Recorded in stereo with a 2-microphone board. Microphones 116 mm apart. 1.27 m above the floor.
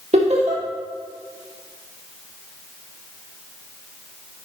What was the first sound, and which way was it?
Laughter, 70° right (ahead or behind).